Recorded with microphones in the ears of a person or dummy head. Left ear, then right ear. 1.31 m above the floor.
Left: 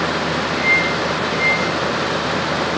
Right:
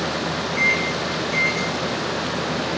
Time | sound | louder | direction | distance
0.6 | a microwave | left 3 dB | 20° right (ahead or behind) | 1.5 m